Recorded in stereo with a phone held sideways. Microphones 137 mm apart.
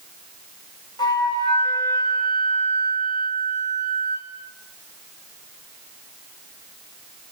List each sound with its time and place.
1.0 s a flute: 35° left (ahead or behind), 5 m